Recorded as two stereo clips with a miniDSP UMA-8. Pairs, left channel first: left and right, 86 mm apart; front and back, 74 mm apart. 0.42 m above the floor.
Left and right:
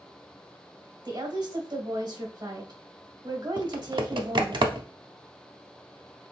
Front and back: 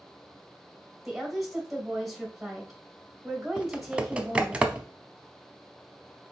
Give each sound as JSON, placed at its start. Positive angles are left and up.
{"t": 1.1, "sound": "a woman speaking", "azimuth_deg": -90, "distance_m": 1.8}
{"t": 3.6, "sound": "typing on a keyboard", "azimuth_deg": -105, "distance_m": 0.5}